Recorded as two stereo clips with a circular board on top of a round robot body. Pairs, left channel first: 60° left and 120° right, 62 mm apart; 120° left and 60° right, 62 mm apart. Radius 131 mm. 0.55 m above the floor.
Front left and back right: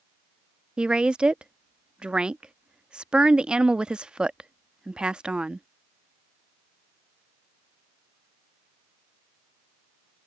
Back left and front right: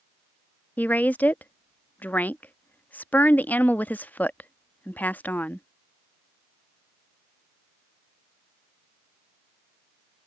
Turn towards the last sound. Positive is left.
turn(degrees=170)